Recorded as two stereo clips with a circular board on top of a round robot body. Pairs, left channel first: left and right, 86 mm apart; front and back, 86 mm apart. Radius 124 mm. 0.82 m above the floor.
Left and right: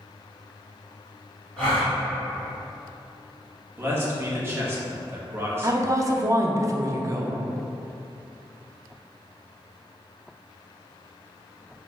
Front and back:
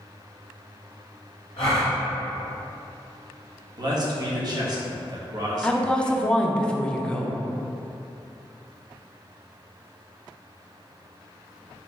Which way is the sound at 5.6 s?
75° right.